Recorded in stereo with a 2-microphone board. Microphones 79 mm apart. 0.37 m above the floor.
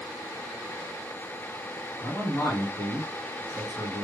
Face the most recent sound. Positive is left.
turn(degrees=40)  # may be behind; listen again after turning